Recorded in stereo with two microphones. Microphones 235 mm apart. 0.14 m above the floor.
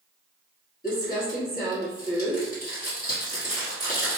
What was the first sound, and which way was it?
Crumpling, 40° left (ahead or behind).